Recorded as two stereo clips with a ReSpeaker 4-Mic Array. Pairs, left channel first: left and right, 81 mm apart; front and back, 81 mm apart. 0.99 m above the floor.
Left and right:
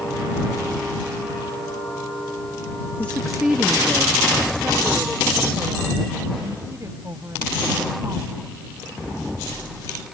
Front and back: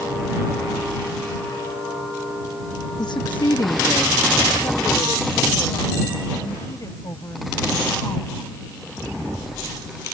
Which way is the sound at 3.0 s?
30° left.